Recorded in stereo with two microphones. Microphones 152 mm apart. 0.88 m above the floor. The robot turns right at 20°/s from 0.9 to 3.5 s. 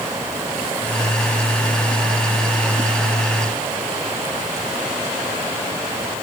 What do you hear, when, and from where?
Only background noise.